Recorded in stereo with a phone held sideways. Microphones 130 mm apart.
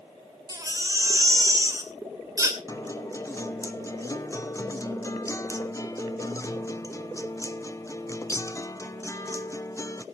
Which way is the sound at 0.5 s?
25° right (ahead or behind).